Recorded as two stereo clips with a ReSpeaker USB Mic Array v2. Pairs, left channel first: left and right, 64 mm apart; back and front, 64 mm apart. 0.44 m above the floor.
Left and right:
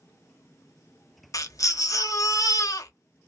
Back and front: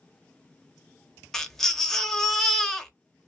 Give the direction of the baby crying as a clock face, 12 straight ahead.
9 o'clock.